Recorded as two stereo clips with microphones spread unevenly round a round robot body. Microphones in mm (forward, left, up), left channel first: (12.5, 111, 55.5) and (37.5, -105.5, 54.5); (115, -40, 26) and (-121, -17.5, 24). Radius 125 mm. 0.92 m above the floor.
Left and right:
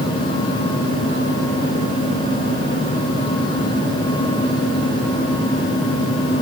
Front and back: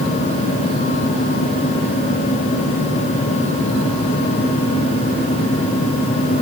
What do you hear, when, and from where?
Only background noise.